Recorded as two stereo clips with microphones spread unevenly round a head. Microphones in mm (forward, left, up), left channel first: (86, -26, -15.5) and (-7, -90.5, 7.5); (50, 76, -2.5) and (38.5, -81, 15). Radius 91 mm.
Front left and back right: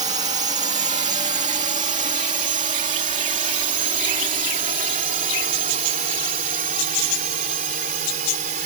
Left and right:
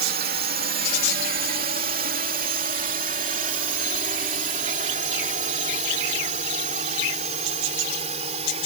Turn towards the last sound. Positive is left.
turn(degrees=-155)